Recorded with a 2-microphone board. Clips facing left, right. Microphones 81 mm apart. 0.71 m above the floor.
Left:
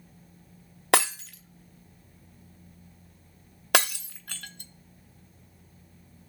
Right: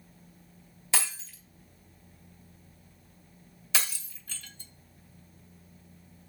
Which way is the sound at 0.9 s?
65° left (ahead or behind).